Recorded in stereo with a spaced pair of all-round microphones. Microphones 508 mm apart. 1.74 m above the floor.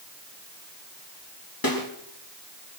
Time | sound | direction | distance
1.6 | a snare drum | 40° left (ahead or behind) | 4 m